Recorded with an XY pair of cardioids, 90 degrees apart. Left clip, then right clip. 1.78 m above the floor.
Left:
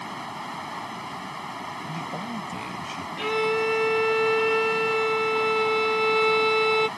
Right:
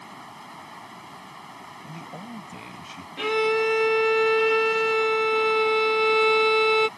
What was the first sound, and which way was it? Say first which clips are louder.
Running water: left 8 dB; 60° left.